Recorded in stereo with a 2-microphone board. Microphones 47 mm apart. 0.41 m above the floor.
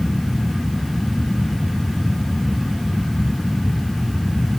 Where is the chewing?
I don't hear chewing.